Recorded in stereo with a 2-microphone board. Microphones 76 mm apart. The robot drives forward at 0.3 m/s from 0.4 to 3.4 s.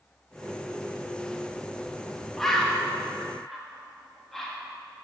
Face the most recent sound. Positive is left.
turn(degrees=5)  # may be behind; listen again after turning